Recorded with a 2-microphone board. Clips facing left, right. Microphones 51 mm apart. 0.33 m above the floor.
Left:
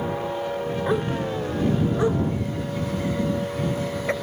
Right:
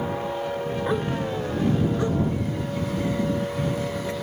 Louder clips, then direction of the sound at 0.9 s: Left 2 dB; 5° left (ahead or behind).